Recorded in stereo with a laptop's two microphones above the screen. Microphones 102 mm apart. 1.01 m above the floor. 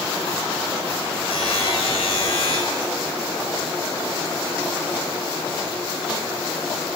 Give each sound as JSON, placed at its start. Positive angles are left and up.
{"t": 1.3, "sound": "a buzzer", "side_deg": 70, "distance_m": 5.0}